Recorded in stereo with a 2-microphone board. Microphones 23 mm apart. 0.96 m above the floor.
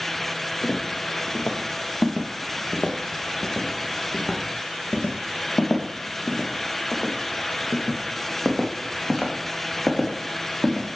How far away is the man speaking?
No man speaking in this recording.